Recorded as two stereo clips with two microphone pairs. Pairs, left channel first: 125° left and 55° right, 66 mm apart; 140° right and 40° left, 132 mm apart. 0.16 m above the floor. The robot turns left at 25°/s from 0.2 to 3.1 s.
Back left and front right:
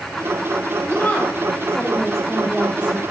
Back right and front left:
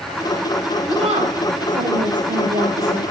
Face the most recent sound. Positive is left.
turn(degrees=10)